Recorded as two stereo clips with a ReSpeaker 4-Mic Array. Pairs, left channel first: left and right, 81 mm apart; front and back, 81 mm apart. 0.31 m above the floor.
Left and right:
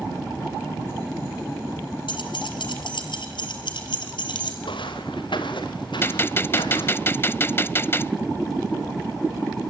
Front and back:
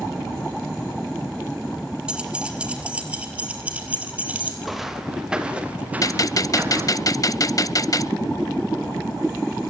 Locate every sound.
2.1 s keys jangling: 100° left, 4 m; by 4.5 s 105° left, 5.5 m
4.6 s footsteps: 90° left, 3.5 m; by 7.0 s 120° left, 4.5 m
6.0 s a gunshot: 35° left, 0.5 m